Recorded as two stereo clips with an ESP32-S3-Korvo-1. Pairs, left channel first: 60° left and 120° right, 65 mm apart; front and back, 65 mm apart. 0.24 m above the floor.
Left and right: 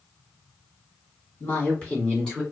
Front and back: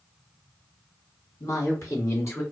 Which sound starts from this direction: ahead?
A woman speaking, at 1.4 s.